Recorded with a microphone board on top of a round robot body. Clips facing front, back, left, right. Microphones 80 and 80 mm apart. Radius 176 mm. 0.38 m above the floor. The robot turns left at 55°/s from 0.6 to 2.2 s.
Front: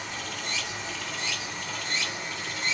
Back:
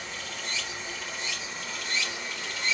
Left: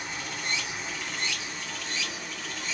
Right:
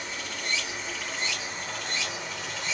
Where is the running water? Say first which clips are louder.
Front 2 dB, even; 20° left, 1.9 m; by 2.7 s 70° right, 1.9 m.